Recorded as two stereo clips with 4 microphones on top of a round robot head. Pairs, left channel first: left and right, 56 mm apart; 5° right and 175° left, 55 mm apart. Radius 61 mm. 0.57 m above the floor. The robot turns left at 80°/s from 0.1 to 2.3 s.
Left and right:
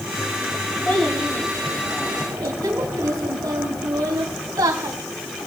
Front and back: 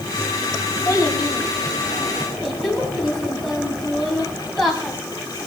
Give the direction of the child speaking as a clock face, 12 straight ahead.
11 o'clock.